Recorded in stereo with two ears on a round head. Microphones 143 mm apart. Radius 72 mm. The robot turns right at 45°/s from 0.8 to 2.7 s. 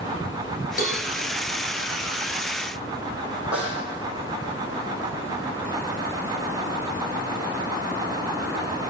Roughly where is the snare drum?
Centre.